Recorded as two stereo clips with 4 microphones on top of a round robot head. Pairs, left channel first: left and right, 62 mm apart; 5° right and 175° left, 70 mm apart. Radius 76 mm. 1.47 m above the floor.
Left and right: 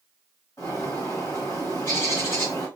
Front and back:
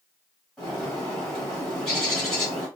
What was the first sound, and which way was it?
A bird, 80° left.